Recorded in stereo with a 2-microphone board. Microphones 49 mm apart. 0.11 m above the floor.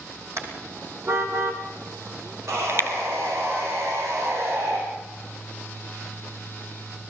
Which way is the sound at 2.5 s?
70° right (ahead or behind).